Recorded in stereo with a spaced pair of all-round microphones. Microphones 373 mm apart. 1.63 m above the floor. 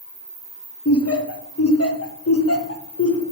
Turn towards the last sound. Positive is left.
turn(degrees=40)  # may be behind; listen again after turning